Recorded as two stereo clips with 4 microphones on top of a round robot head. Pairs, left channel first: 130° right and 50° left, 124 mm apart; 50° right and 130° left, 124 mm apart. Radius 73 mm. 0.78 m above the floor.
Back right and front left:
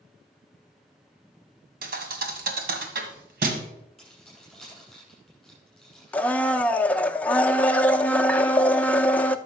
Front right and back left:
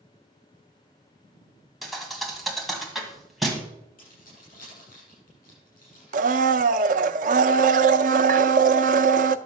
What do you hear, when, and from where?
1.8 s a thud: 35° left, 1.7 m
4.0 s keys jangling: 40° right, 7 m
6.1 s a blender: 155° left, 0.5 m